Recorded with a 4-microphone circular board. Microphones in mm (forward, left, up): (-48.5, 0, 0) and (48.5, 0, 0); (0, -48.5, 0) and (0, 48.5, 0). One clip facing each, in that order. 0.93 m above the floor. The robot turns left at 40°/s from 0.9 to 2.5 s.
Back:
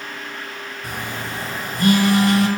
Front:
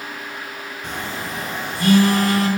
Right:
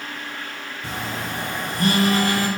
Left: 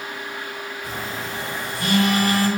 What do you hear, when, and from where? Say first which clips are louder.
0.8 s a phone buzzing: front 1 dB, right 3 dB; 100° right, 5 m; by 2.5 s 165° right, 5 m